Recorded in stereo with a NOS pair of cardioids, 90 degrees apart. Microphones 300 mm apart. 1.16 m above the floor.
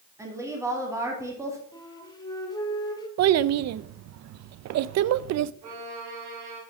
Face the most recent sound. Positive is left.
turn(degrees=-65)